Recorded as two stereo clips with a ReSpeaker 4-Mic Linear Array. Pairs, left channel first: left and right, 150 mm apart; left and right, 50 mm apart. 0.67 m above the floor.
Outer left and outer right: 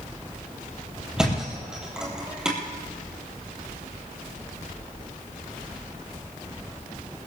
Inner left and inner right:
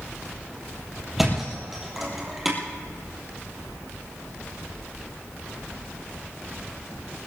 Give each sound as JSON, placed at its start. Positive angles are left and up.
{"t": 1.2, "sound": "a thud", "side_deg": -5, "distance_m": 4.5}